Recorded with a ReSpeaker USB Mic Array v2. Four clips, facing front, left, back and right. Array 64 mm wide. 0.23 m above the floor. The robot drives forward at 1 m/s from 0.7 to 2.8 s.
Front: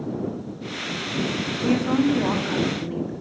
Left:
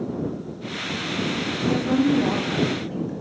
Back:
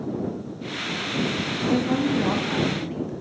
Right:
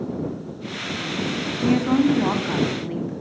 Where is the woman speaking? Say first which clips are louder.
Right 3 dB, front 2 dB; 65° right, 2 m; by 3.1 s 105° right, 2 m.